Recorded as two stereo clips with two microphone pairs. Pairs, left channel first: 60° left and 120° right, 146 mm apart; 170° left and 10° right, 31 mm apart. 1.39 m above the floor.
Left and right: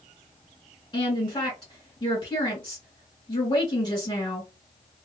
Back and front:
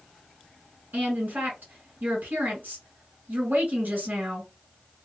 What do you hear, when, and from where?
0.9 s a woman speaking: 10° left, 1.8 m